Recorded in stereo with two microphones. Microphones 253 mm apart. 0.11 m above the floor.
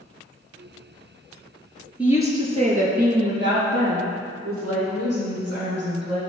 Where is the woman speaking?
5° right (ahead or behind), 1.6 m; by 6.2 s 75° right (ahead or behind), 4.5 m.